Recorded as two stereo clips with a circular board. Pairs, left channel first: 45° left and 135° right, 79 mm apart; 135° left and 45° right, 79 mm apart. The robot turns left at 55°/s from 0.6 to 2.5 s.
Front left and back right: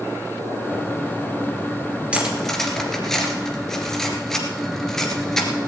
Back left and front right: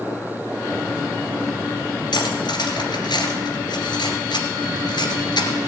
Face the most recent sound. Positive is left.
turn(degrees=130)